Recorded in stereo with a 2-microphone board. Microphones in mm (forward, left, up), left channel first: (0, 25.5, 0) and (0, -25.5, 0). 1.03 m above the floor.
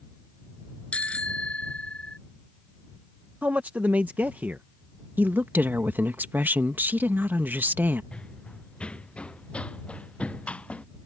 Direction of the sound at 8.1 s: 20° left (ahead or behind).